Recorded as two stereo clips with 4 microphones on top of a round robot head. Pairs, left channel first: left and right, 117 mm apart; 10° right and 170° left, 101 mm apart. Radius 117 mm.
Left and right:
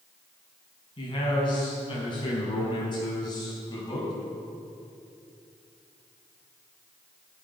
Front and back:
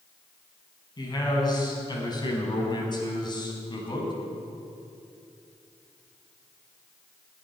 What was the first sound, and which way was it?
A man speaking, 40° left.